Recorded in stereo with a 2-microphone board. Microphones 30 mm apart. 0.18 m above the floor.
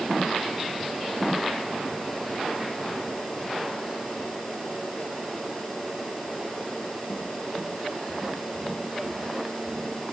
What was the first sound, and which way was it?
Only background noise.